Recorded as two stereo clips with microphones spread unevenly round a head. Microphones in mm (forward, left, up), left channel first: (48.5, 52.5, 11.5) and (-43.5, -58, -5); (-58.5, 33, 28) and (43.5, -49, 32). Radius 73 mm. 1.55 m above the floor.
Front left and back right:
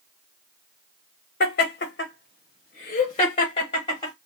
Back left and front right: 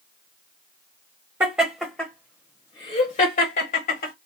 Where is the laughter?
35° left, 1.0 m; by 4.1 s 115° left, 1.5 m.